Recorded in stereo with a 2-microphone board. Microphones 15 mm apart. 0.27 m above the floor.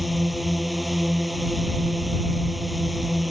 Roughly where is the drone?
Centre.